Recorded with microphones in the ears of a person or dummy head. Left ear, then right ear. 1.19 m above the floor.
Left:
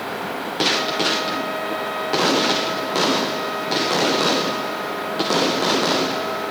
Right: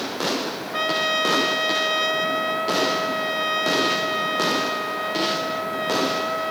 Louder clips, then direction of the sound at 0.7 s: Left 1 dB; 70° right (ahead or behind).